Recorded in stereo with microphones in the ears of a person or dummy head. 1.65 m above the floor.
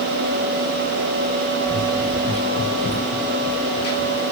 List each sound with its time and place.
1.6 s running footsteps: 25° left (ahead or behind), 5.5 m; by 4.2 s 65° left (ahead or behind), 5.5 m